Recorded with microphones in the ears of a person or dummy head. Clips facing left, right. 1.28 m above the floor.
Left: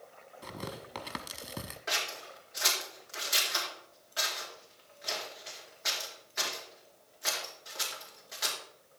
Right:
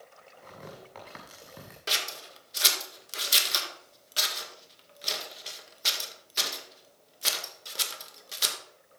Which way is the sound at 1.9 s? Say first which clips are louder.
Right 3 dB; 35° right (ahead or behind).